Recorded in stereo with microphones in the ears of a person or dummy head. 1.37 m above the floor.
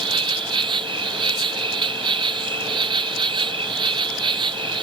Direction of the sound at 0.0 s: 30° right (ahead or behind).